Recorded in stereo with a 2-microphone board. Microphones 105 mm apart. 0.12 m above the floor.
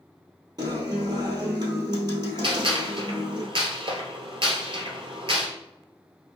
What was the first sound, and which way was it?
A guitar, 45° right (ahead or behind).